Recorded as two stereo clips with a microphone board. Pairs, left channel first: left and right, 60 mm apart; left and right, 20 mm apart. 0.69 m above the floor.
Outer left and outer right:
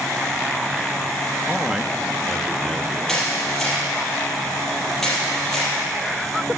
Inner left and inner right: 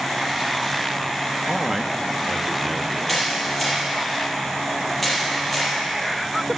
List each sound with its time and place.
1.5 s a man speaking: 20° right (ahead or behind), 0.8 m; by 3.0 s 10° left (ahead or behind), 1.5 m
3.1 s a camera shutter: 5° left (ahead or behind), 4.5 m